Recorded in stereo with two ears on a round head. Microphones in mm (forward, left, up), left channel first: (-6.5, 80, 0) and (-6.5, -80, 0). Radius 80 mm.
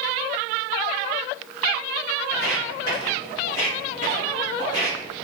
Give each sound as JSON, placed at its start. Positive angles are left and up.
{"t": 2.3, "sound": "footsteps", "side_deg": 60, "distance_m": 2.0}